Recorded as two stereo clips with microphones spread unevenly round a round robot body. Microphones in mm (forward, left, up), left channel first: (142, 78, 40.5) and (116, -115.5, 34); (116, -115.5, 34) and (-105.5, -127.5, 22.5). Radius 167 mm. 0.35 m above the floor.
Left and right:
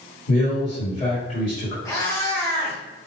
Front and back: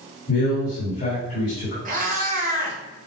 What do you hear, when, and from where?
0.3 s a man speaking: 35° left, 2 m
1.9 s a cat meowing: 155° left, 0.8 m